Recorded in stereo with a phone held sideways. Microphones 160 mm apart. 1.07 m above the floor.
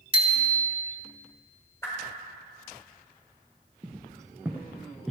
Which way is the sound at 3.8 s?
25° right (ahead or behind).